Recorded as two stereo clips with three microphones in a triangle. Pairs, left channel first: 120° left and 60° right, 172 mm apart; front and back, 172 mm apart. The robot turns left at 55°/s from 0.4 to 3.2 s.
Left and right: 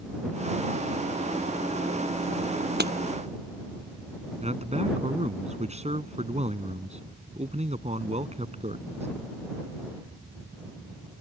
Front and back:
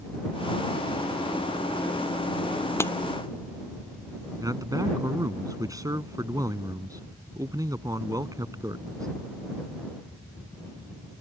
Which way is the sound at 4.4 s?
110° right.